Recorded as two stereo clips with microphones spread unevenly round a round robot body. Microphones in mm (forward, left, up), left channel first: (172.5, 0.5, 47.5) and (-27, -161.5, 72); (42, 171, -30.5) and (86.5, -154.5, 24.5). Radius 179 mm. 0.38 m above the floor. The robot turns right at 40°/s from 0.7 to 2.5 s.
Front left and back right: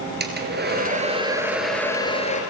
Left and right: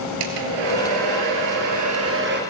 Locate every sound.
0.2 s a hair dryer: 90° right, 4.5 m; by 2.4 s 20° right, 4.5 m